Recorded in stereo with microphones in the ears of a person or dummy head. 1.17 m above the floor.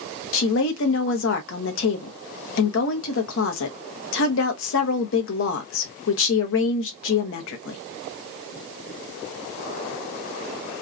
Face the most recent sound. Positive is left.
turn(degrees=70)  # may be behind; listen again after turning